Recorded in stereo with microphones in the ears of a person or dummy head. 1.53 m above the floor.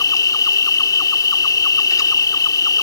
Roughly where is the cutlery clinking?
No cutlery clinking in this recording.